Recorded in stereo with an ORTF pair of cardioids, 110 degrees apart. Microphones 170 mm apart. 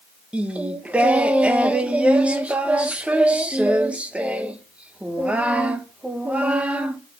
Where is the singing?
10° right, 1.2 m.